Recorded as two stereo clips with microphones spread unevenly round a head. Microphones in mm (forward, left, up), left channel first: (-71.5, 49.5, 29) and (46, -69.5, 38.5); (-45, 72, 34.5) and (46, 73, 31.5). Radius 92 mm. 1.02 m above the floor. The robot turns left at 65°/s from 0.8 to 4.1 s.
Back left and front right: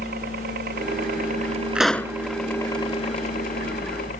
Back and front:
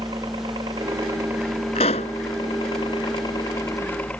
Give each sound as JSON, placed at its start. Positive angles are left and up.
{"t": 0.0, "sound": "a helicopter", "azimuth_deg": -35}
{"t": 1.8, "sound": "a pop", "azimuth_deg": -130}